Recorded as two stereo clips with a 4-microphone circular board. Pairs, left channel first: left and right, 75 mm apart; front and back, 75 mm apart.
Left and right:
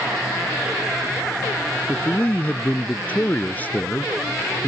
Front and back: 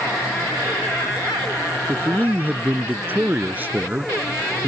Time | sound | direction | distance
1.9 | a man speaking | 135° left | ?